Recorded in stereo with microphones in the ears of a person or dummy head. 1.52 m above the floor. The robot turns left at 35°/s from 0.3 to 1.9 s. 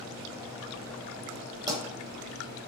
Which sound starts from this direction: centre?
A pop, at 1.7 s.